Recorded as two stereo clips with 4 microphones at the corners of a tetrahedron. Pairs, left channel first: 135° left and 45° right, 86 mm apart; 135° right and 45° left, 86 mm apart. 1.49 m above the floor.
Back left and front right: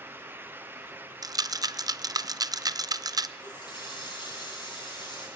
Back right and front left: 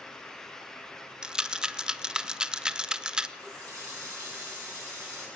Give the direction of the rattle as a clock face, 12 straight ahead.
1 o'clock.